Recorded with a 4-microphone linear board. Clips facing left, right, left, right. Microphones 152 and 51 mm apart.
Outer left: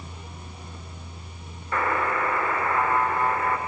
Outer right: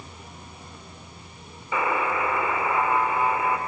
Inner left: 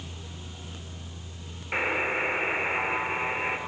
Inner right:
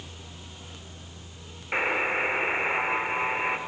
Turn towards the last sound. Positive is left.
turn(degrees=-5)  # may be behind; listen again after turning